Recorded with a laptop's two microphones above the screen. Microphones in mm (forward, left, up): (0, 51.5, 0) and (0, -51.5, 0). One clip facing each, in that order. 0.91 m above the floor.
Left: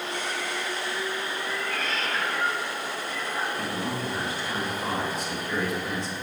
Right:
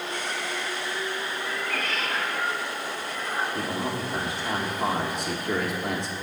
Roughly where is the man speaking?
Right.